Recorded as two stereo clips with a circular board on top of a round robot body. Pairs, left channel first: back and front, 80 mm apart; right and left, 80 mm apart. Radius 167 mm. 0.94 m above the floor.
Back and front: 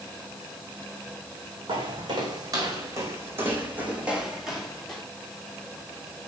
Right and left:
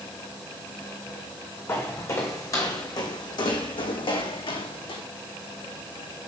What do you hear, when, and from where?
1.7 s footsteps: 30° right, 3 m; by 5.0 s 95° right, 3 m